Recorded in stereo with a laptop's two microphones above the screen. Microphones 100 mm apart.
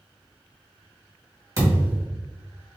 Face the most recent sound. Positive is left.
turn(degrees=-35)  # may be behind; listen again after turning